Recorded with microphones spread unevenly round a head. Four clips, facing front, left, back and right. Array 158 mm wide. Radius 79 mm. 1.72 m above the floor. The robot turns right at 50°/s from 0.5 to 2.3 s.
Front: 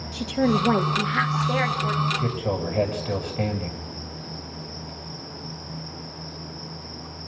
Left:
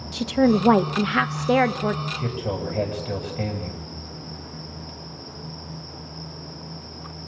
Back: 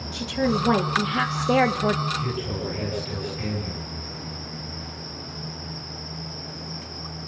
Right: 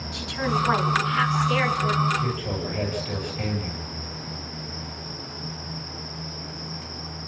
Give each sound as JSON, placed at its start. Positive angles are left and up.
{"t": 0.1, "sound": "a woman speaking", "azimuth_deg": 75, "distance_m": 1.8}
{"t": 2.1, "sound": "a man speaking", "azimuth_deg": 20, "distance_m": 8.5}